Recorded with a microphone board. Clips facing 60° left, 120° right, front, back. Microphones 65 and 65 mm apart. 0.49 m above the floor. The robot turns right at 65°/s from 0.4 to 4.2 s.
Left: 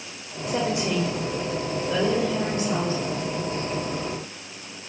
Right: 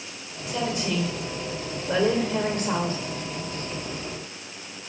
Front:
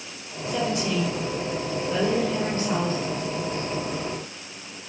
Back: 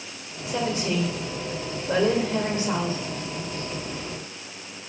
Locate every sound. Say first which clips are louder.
0.5 s a woman speaking: left 3 dB, front 1 dB; 105° left, 1.8 m; by 3.0 s 90° right, 1.8 m